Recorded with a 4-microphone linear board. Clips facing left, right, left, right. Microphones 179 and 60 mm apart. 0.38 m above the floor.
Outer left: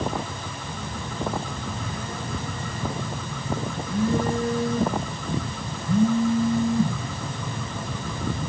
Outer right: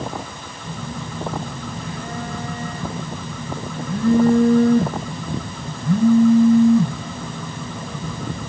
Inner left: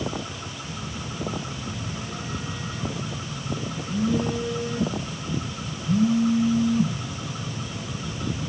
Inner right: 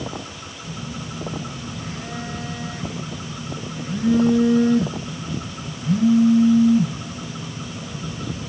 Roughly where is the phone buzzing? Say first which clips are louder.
Outer right 6 dB, inner right 5 dB; right.